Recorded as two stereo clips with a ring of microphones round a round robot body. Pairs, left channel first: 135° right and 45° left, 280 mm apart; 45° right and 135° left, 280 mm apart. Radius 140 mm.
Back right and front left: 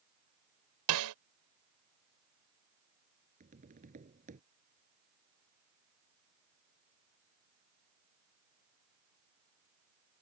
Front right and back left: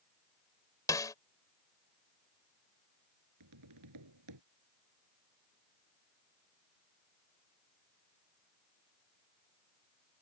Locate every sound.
0.9 s a snare drum: 35° left
3.4 s tapping: 110° left